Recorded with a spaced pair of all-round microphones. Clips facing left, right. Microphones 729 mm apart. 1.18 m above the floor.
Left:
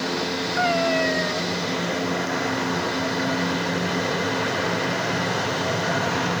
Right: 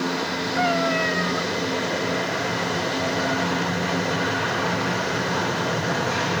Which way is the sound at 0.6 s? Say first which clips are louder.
Even; 35° right (ahead or behind).